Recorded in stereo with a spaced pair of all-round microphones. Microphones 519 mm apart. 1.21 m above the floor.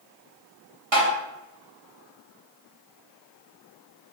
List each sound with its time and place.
0.9 s tapping: 55° right (ahead or behind), 1.0 m